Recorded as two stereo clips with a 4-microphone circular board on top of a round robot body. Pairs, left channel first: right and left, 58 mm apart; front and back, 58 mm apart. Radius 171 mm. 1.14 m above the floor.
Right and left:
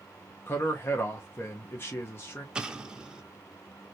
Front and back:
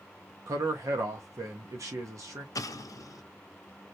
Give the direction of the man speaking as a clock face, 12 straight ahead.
5 o'clock.